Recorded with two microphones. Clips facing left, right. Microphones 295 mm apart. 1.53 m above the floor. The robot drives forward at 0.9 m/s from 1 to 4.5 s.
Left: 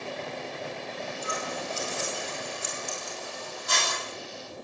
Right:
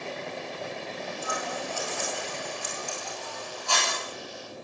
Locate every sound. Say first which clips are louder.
1.2 s scissors: right 1 dB; 25° left (ahead or behind), 9 m; by 3.9 s 20° left (ahead or behind), 11 m